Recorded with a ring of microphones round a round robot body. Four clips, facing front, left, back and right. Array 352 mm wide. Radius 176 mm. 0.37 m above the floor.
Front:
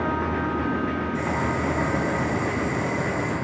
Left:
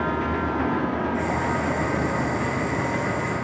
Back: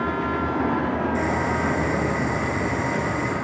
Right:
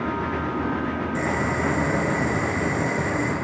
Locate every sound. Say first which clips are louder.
1.1 s boiling: even, back 2 dB; 110° right, 7 m